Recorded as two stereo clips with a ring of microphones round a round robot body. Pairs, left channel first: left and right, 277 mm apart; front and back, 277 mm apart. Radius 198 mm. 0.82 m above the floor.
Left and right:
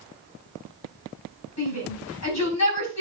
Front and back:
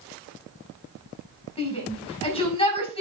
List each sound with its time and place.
1.6 s a shout: 70° left, 5 m